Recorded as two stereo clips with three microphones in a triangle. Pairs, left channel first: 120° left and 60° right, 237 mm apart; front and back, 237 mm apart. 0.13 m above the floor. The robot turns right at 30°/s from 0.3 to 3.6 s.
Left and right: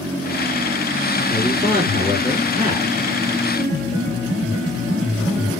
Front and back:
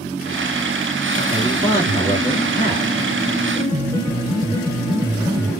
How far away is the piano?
About 2 m.